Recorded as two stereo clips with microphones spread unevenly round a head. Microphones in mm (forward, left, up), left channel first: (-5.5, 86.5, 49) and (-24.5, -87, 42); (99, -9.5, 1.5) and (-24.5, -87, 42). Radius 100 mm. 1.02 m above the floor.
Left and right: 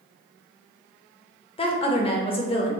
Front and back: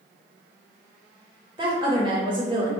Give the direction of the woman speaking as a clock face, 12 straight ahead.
7 o'clock.